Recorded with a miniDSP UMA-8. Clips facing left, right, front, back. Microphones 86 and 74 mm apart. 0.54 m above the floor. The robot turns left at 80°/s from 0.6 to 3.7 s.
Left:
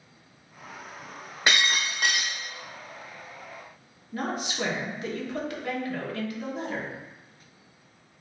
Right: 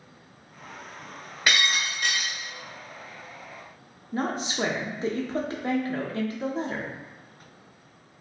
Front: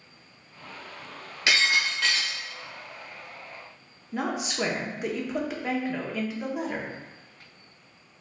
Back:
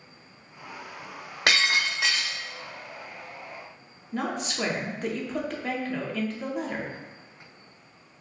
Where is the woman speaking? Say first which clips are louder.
Right 2 dB, front 1 dB; 75° right, 0.7 m.